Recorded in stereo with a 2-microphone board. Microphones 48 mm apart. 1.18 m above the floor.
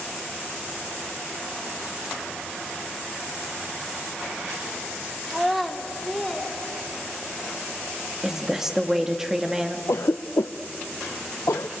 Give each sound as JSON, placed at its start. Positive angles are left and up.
{"t": 5.3, "sound": "a child speaking", "side_deg": -5, "distance_m": 1.3}
{"t": 8.2, "sound": "a woman speaking", "side_deg": -10, "distance_m": 1.6}
{"t": 9.9, "sound": "a cough", "side_deg": 85, "distance_m": 0.5}